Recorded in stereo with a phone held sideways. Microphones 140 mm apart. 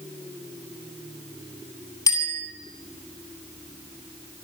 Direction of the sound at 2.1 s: 25° left (ahead or behind).